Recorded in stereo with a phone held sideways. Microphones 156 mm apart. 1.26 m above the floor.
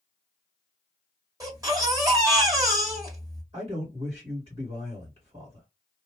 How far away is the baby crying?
About 1.5 m.